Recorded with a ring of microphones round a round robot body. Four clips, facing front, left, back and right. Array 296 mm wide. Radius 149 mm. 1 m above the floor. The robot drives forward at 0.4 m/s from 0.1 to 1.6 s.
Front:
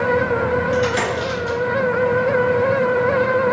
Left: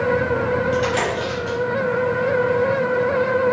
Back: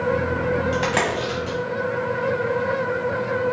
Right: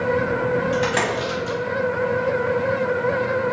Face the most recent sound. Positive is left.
turn(degrees=-165)